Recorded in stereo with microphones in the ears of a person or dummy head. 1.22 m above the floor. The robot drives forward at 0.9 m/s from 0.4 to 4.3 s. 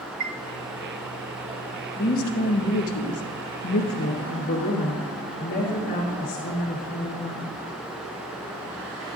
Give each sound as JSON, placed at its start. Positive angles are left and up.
{"t": 0.2, "sound": "a chime", "side_deg": -40, "distance_m": 0.5}
{"t": 2.0, "sound": "a woman speaking", "side_deg": 45, "distance_m": 1.6}